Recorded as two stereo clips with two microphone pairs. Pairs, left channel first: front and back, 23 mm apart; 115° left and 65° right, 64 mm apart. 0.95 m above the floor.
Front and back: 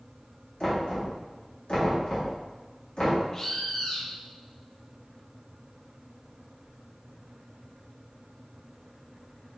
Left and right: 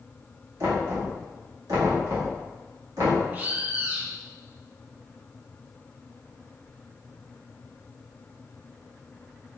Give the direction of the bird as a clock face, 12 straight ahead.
2 o'clock.